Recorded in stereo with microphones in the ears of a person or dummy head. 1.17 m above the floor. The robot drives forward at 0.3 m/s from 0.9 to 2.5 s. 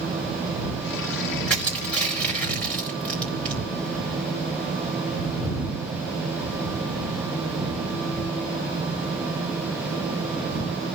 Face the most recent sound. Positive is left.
turn(degrees=5)  # may be behind; listen again after turning